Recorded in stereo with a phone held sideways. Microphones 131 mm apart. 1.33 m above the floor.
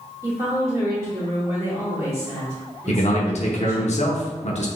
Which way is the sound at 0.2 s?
20° right (ahead or behind).